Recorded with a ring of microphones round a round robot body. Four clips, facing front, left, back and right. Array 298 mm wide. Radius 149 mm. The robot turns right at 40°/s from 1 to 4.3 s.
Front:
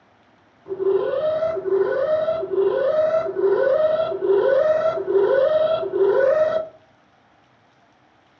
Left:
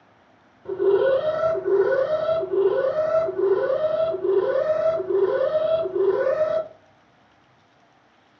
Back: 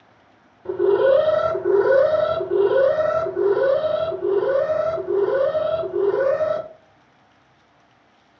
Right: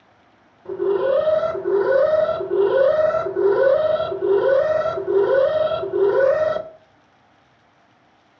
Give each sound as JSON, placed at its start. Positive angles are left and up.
{"t": 0.7, "sound": "an alarm", "azimuth_deg": 170, "distance_m": 1.1}